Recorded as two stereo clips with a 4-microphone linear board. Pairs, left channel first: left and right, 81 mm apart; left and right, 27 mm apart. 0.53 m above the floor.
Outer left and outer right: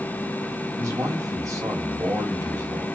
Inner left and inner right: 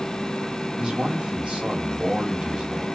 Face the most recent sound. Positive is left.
turn(degrees=-40)  # may be behind; listen again after turning